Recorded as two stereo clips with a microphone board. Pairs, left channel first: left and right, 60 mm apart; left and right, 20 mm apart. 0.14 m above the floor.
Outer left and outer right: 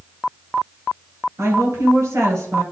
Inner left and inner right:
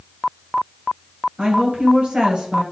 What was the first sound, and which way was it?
A woman speaking, 50° right (ahead or behind).